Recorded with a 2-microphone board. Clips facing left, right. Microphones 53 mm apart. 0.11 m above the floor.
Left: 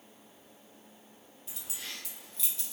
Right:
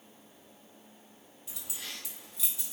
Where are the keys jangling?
Centre (ahead or behind), 1.8 m; by 2.7 s 10° right (ahead or behind), 1.1 m.